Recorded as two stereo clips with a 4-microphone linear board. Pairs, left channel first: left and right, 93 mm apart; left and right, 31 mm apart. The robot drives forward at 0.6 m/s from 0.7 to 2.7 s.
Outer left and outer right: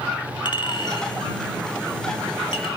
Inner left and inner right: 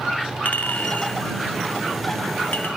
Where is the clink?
60° left (ahead or behind), 2.0 m; by 2.7 s 75° left (ahead or behind), 1.8 m.